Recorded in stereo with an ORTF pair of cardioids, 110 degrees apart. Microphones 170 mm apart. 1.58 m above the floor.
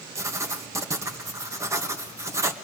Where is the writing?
15° right, 1.6 m.